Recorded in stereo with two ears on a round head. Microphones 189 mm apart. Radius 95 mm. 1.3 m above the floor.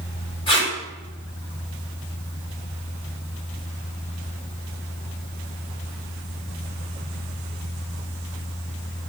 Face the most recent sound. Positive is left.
turn(degrees=25)  # may be behind; listen again after turning